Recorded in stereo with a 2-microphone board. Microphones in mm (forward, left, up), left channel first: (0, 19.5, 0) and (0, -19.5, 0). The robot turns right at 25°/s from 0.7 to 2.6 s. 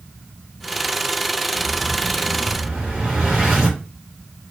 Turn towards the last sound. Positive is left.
turn(degrees=-10)  # may be behind; listen again after turning